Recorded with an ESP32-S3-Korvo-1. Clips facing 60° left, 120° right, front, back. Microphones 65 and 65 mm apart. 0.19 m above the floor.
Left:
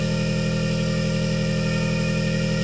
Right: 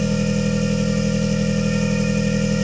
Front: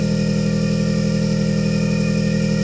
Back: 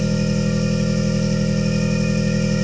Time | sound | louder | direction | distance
0.0 | an engine running | right 4 dB, front 1 dB | 40° right | 1.6 m